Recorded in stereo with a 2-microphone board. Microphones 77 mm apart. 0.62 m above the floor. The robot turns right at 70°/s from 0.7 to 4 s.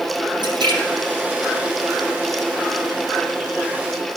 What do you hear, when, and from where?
0.4 s a splash: 80° right, 7 m; by 2.1 s centre (ahead or behind), 7 m